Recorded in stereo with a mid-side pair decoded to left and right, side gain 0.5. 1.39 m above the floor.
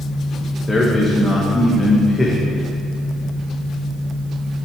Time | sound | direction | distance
0.7 | a man speaking | 10° left | 2.0 m